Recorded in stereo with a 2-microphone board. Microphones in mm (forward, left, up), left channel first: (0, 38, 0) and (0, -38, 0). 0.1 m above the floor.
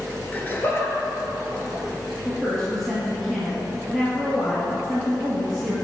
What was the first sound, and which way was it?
Laughter, 20° left (ahead or behind).